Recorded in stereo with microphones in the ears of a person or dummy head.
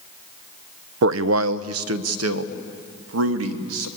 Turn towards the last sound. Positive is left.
turn(degrees=-80)